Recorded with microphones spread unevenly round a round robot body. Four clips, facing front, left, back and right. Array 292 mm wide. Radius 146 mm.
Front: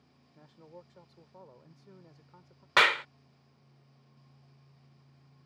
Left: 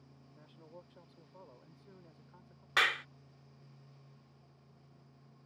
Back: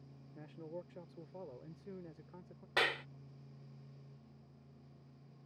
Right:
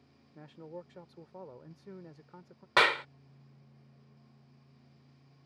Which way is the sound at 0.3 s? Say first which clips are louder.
Right 10 dB, back 5 dB; 135° right.